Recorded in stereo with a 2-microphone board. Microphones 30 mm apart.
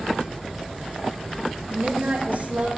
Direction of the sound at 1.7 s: 75° right (ahead or behind).